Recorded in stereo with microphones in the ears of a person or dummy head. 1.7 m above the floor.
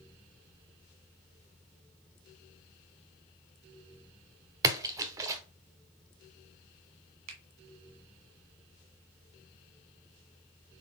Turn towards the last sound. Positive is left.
turn(degrees=-75)  # may be behind; listen again after turning